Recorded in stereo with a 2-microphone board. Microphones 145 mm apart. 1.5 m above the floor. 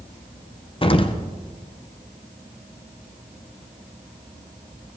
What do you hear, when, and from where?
0.8 s an explosion: 40° left (ahead or behind), 0.9 m